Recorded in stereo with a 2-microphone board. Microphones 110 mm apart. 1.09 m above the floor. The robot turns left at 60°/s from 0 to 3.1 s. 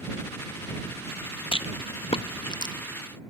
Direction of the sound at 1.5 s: 50° left (ahead or behind).